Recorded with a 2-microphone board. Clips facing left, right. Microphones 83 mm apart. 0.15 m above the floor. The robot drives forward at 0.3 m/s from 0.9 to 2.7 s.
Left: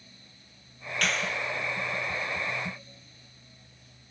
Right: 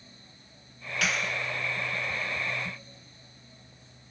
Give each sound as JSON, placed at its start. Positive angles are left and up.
{"t": 1.0, "sound": "a clap", "side_deg": -5, "distance_m": 3.0}